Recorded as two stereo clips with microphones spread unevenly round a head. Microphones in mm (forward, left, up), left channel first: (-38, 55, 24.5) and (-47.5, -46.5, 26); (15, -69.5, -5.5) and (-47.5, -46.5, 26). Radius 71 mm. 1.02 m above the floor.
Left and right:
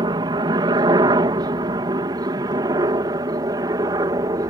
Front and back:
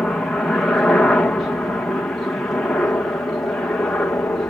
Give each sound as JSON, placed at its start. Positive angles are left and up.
{"t": 0.0, "sound": "a helicopter", "azimuth_deg": -80}